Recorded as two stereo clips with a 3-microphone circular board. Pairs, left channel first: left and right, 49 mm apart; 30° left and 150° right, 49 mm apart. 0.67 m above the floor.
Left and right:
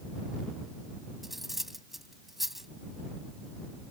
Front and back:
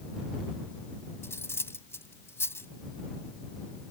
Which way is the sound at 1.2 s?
5° right.